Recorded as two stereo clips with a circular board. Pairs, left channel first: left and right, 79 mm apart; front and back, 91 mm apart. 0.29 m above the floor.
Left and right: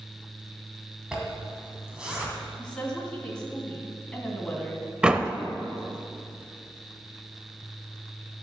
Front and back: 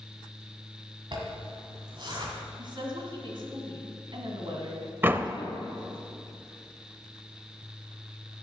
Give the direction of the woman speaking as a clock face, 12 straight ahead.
6 o'clock.